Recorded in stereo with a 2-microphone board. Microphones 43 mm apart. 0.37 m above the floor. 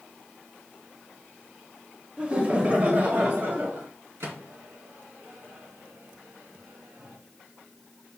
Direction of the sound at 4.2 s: 75° right (ahead or behind).